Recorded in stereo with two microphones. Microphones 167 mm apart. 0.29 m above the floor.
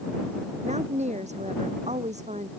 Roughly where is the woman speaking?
Right.